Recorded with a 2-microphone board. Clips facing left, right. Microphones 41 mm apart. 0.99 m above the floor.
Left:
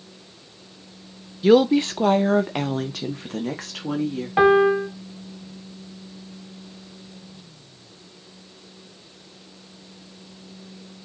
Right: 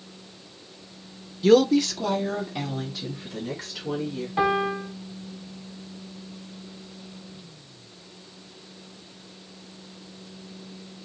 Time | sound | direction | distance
1.4 | a woman speaking | 10° left (ahead or behind) | 0.6 m
4.4 | a piano | 50° left (ahead or behind) | 1.2 m